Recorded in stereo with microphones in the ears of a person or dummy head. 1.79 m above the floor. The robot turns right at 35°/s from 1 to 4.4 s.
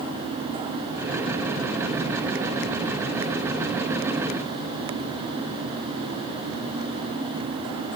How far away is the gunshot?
No gunshot in this recording.